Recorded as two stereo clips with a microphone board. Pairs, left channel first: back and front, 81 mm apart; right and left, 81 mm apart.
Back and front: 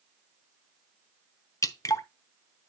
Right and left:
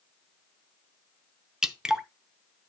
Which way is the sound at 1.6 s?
170° left.